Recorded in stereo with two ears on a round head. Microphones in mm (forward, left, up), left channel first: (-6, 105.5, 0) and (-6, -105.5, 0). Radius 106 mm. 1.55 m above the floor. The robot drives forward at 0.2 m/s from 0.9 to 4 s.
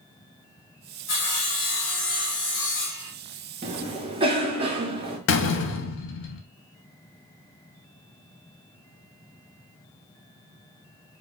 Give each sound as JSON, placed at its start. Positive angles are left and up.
{"t": 1.1, "sound": "sawing", "side_deg": 55, "distance_m": 1.2}
{"t": 3.6, "sound": "a cough", "side_deg": -25, "distance_m": 0.8}
{"t": 5.3, "sound": "a door slam", "side_deg": 55, "distance_m": 0.5}